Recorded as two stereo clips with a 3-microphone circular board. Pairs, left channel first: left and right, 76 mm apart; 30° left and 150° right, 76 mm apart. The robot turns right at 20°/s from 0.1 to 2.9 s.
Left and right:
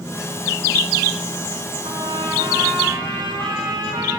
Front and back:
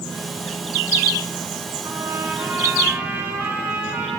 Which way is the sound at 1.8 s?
100° right.